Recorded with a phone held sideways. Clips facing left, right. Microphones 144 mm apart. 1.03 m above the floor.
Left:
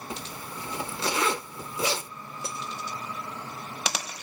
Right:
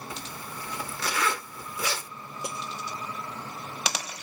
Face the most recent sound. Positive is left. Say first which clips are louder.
# right 1 dB
turn(degrees=-15)  # may be behind; listen again after turning